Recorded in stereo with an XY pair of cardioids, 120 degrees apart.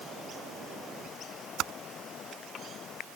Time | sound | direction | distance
1.6 | typing on a keyboard | 65° right | ?